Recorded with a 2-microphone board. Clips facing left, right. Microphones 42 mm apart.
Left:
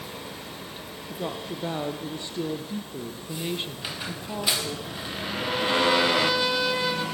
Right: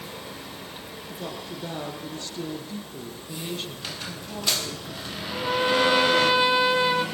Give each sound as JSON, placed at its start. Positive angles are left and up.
{"t": 1.1, "sound": "a woman speaking", "side_deg": 20, "distance_m": 3.0}
{"t": 3.8, "sound": "a squeak", "side_deg": 15, "distance_m": 4.0}
{"t": 5.3, "sound": "a trumpet", "side_deg": -25, "distance_m": 1.9}